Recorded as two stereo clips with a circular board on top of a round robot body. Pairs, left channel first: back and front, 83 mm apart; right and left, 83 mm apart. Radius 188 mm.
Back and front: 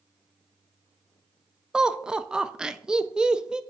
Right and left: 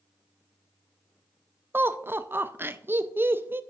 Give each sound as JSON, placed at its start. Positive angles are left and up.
{"t": 1.7, "sound": "laughter", "azimuth_deg": 70, "distance_m": 0.8}